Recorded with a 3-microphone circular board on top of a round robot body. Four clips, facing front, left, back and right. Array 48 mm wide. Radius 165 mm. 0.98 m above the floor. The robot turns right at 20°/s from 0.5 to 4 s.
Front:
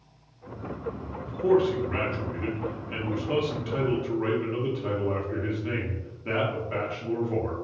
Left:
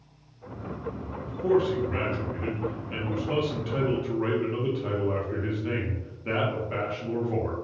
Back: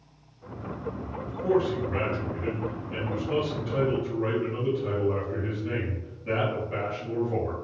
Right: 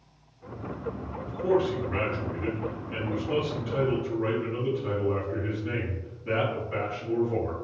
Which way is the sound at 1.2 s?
5° right.